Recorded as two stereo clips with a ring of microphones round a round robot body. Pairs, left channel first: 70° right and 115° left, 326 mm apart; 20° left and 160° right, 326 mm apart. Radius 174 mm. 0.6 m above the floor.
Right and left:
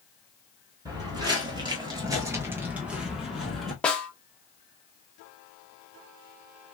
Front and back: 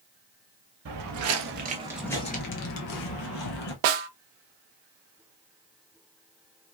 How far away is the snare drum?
About 0.5 m.